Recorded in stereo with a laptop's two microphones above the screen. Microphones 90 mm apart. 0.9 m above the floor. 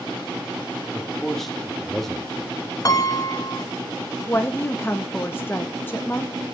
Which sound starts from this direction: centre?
A man speaking, at 0.9 s.